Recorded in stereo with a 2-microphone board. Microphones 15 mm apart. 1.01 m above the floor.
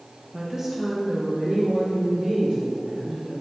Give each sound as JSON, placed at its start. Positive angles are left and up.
{"t": 0.3, "sound": "a woman speaking", "side_deg": -35, "distance_m": 0.6}